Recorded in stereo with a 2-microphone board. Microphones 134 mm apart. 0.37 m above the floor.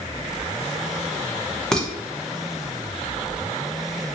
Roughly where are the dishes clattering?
Centre.